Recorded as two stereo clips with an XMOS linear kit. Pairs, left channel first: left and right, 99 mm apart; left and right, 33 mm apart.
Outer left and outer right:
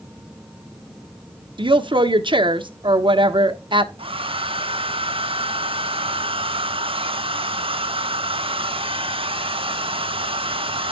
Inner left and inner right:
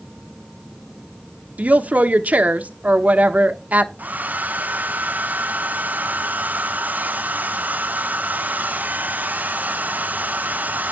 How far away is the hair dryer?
About 1.0 m.